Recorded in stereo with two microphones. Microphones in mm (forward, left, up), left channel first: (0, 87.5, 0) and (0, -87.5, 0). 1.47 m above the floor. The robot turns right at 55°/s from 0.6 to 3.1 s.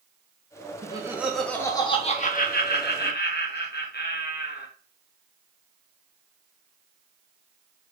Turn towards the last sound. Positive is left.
turn(degrees=95)